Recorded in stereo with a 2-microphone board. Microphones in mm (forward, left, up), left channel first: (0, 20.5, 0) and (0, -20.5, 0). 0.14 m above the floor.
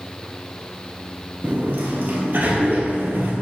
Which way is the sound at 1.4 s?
60° right (ahead or behind).